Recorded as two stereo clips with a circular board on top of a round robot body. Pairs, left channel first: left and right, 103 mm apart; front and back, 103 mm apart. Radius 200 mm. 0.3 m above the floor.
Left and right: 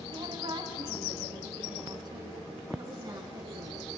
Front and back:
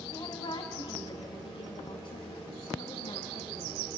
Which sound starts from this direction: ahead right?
A woman speaking, at 0.1 s.